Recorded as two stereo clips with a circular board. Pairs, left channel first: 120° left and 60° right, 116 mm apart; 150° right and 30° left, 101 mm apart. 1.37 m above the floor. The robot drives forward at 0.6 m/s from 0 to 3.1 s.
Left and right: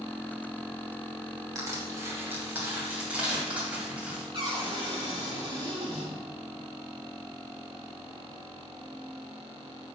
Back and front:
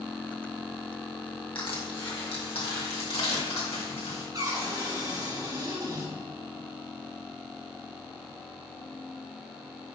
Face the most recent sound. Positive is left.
turn(degrees=-20)